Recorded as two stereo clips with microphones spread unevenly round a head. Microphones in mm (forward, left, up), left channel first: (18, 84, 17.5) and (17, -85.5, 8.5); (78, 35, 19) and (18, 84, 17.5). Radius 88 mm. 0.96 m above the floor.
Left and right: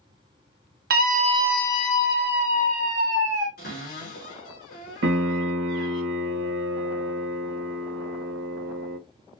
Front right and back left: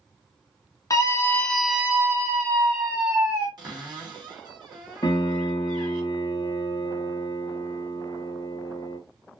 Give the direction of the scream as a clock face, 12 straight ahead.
3 o'clock.